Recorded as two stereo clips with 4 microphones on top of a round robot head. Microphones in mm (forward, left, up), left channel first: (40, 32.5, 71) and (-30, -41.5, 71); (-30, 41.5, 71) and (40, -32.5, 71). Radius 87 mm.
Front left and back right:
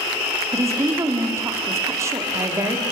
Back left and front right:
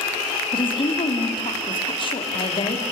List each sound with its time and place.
0.5 s a woman speaking: 165° left, 2 m